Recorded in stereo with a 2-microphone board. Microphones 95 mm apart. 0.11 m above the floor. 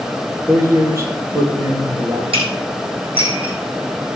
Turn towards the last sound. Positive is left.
turn(degrees=-70)  # may be behind; listen again after turning